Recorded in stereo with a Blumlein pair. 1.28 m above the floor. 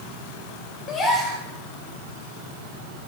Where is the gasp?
20° left, 2.5 m.